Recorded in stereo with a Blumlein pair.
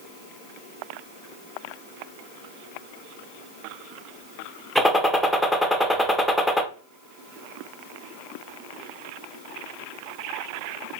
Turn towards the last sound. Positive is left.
turn(degrees=0)